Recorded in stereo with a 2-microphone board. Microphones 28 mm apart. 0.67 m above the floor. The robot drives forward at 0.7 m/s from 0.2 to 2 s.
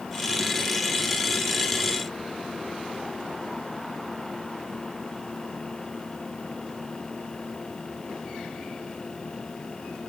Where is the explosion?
No explosion in this recording.